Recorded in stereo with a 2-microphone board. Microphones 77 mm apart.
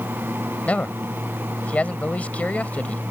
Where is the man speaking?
20° left (ahead or behind).